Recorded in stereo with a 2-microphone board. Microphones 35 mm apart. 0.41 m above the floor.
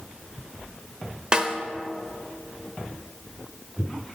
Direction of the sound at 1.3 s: 25° right (ahead or behind).